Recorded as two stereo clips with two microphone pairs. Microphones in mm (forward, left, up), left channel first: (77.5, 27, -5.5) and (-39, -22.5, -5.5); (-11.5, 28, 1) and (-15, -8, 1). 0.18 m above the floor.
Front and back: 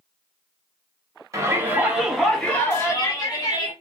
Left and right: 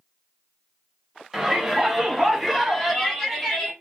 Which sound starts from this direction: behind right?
A shout, at 1.3 s.